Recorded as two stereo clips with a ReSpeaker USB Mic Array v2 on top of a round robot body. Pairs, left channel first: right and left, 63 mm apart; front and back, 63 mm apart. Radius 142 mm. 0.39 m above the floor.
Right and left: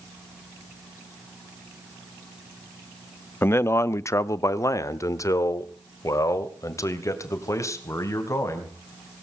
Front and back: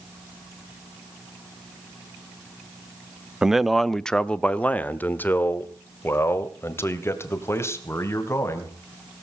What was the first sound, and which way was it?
A man speaking, 105° right.